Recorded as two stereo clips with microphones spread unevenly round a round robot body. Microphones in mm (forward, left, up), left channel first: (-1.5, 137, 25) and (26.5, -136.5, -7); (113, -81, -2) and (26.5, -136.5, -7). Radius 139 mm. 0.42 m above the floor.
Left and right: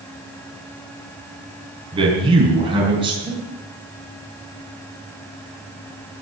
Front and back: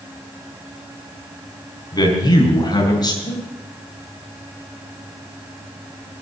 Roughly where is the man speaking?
Ahead.